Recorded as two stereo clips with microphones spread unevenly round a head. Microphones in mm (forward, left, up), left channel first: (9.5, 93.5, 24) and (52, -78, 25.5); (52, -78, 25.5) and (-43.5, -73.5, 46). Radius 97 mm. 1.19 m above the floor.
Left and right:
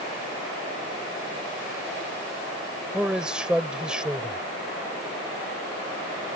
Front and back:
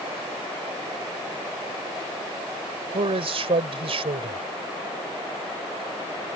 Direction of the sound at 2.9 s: 160° right.